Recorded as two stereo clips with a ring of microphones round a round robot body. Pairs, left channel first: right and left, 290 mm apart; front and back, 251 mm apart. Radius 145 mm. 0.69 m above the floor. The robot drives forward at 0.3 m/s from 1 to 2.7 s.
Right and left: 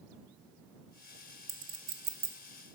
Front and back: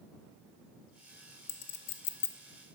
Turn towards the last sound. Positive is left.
turn(degrees=50)